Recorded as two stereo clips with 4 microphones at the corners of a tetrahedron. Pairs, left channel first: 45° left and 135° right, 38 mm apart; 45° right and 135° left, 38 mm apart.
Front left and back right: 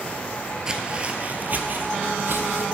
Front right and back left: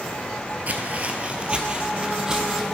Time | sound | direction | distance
0.7 | footsteps | 160° left | 1.1 m